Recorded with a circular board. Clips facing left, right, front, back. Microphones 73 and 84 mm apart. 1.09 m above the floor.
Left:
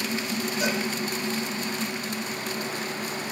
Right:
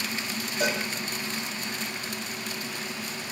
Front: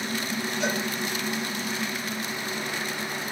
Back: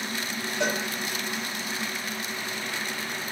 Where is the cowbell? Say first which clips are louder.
Right 1 dB, back 2 dB; 145° right, 5.5 m.